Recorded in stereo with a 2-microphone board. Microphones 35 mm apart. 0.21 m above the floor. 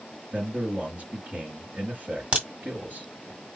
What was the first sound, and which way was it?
A man speaking, 50° right (ahead or behind).